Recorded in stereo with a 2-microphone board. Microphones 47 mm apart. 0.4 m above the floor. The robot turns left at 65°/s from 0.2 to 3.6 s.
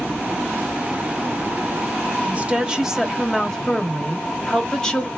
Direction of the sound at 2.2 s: 115° right.